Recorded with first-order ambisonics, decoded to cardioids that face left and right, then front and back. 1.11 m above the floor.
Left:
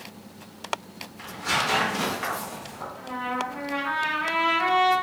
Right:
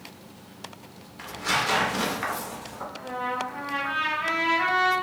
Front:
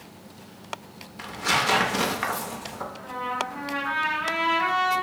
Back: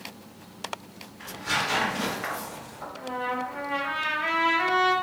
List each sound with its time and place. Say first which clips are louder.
1.2 s tearing paper: even, front 4 dB; 10° right, 0.6 m
3.0 s a trumpet: even, back 1 dB; 165° right, 1.6 m